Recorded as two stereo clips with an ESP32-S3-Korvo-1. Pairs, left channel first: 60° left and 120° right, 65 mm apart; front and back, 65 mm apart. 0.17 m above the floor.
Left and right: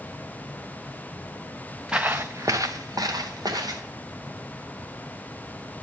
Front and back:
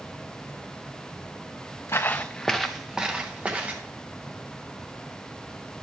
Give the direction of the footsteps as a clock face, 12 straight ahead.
1 o'clock.